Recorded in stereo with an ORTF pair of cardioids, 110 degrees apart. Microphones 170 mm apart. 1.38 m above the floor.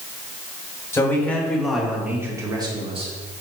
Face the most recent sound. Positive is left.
turn(degrees=-35)